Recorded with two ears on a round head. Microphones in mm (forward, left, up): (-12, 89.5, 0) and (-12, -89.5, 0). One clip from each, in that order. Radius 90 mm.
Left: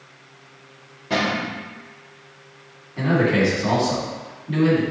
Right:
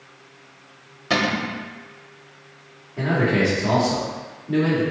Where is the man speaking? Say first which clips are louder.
Left 1 dB; 80° left, 2.0 m.